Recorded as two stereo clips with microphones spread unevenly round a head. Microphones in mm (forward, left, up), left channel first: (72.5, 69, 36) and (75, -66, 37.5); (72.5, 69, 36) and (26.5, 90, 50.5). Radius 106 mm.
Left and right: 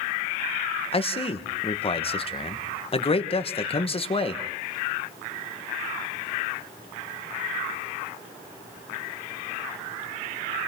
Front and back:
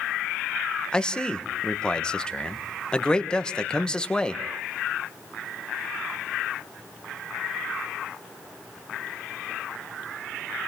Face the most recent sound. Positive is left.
turn(degrees=45)